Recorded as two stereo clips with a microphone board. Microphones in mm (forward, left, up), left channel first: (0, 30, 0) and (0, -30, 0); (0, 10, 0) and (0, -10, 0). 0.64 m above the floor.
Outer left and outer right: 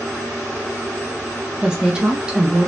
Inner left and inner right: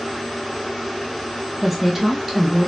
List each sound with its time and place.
1.6 s a woman speaking: 15° right (ahead or behind), 0.8 m